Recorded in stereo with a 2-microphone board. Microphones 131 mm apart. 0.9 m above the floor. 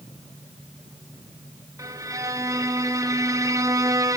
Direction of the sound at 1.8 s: 25° right (ahead or behind).